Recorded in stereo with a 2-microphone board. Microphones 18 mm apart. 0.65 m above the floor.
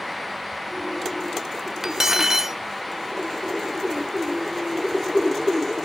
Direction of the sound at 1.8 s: 20° right (ahead or behind).